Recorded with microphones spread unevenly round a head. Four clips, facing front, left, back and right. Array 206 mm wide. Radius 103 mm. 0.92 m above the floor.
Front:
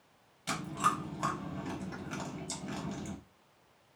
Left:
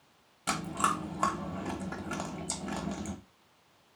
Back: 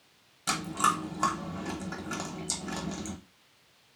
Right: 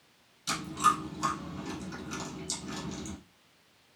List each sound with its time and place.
0.5 s chewing: 120° left, 0.8 m